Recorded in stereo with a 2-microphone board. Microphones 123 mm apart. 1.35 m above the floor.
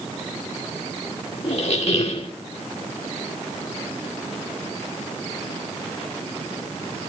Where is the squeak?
60° left (ahead or behind), 1.9 m.